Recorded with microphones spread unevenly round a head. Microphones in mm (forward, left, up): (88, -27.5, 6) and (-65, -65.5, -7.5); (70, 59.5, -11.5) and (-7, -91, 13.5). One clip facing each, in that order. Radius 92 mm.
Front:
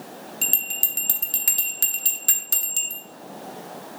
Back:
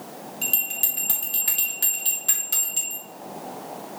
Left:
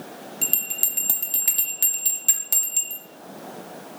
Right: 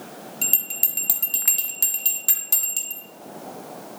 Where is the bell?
20° right, 1.2 m.